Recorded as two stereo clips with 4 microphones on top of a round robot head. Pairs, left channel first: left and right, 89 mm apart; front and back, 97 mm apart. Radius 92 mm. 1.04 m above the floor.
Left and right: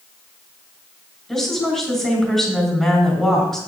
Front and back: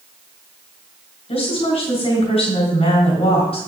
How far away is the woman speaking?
About 4 m.